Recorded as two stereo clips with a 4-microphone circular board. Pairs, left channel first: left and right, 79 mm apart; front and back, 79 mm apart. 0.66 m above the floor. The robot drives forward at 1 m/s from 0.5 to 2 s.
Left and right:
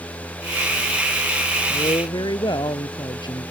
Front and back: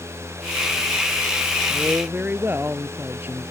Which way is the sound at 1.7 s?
110° left.